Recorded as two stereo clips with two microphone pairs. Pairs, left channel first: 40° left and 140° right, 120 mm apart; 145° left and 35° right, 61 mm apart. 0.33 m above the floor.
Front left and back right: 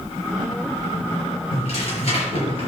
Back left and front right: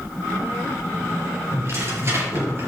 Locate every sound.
1.5 s tearing paper: 5° left, 5.5 m